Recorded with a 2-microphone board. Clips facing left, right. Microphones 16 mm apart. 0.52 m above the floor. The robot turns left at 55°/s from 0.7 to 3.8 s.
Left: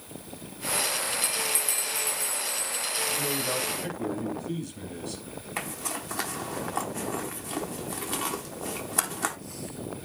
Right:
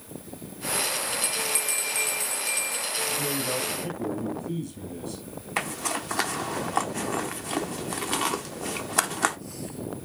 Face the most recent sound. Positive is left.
turn(degrees=-25)  # may be behind; listen again after turning